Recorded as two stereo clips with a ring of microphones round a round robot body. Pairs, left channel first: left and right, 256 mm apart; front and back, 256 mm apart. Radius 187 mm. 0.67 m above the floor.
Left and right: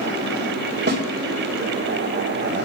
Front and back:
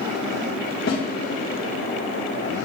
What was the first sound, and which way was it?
A snare drum, 45° right.